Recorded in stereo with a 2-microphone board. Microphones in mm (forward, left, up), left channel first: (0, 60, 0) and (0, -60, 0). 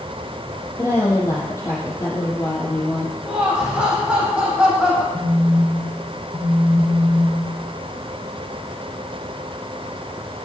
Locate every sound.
0.8 s a woman speaking: 25° left (ahead or behind), 6 m
3.2 s laughter: 5° right (ahead or behind), 6.5 m
5.1 s a phone buzzing: 15° right (ahead or behind), 4.5 m